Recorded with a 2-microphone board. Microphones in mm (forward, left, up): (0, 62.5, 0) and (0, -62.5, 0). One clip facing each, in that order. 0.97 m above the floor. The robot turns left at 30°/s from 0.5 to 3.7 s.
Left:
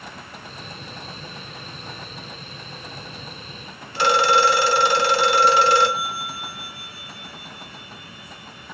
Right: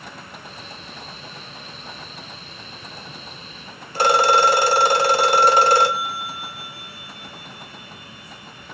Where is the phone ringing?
40° right (ahead or behind), 0.6 m.